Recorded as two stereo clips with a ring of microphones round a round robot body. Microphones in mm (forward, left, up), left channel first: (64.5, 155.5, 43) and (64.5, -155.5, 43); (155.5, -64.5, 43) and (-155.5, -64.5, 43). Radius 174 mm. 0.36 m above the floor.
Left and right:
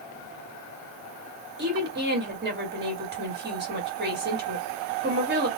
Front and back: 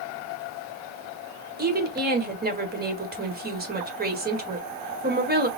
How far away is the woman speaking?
About 1.8 m.